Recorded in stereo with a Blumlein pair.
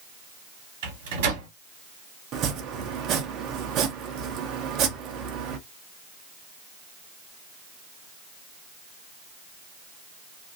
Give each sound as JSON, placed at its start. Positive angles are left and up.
{"t": 0.8, "sound": "a microwave", "azimuth_deg": -55, "distance_m": 1.3}
{"t": 2.3, "sound": "chopping", "azimuth_deg": -35, "distance_m": 0.8}